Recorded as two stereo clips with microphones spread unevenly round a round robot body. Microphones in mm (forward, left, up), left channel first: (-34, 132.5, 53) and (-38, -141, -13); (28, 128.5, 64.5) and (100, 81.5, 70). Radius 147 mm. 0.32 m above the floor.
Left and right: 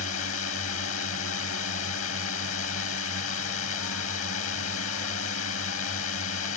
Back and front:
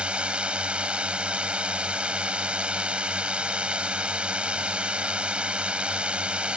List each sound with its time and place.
0.0 s a drone: 45° left